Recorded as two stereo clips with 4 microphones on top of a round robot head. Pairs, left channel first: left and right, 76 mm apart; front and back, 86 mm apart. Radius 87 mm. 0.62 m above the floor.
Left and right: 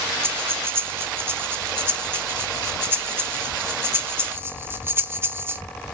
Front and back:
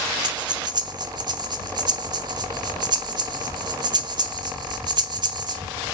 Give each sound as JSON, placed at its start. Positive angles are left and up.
{"t": 0.2, "sound": "breathing", "azimuth_deg": -150, "distance_m": 0.8}